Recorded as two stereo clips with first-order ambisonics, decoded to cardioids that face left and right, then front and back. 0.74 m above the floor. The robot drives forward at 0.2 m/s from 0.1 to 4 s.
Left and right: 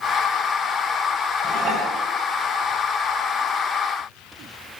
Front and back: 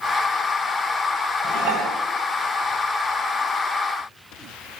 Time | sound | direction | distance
1.4 | dishes clattering | 140° right | 5 m